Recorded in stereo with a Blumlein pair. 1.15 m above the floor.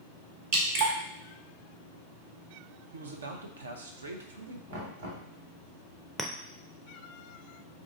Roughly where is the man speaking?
Right.